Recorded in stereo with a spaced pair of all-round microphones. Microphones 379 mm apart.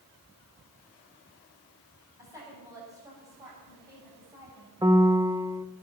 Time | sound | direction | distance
2.2 | a woman speaking | 10° right (ahead or behind) | 8 m
4.8 | a piano | 10° right (ahead or behind) | 0.8 m